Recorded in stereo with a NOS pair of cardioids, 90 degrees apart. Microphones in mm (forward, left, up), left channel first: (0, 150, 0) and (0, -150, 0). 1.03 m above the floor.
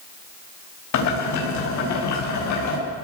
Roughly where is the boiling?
Left.